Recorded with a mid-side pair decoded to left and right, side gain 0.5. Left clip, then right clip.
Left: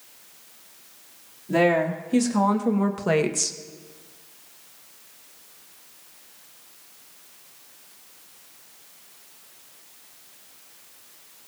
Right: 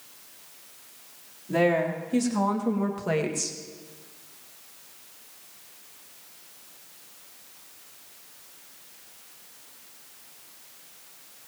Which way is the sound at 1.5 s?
30° left.